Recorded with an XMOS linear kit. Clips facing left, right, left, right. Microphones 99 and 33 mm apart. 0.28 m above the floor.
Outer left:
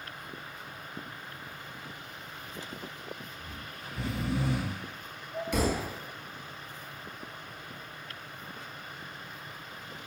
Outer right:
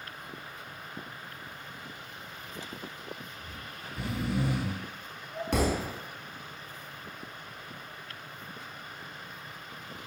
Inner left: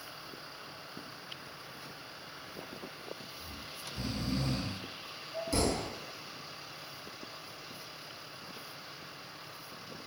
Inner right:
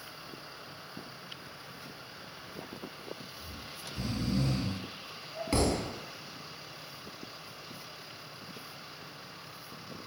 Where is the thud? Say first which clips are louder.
Outer right 1 dB, inner right 3 dB; 60° right (ahead or behind), 0.5 m.